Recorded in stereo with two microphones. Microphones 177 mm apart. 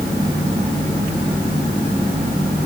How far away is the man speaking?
No man speaking in this recording.